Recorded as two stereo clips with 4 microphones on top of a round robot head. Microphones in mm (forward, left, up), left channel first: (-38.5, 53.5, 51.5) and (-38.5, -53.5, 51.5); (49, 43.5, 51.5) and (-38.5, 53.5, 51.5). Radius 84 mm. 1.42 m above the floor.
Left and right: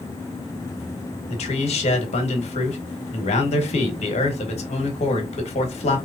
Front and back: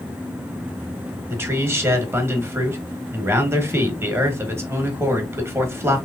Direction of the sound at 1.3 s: 110° left.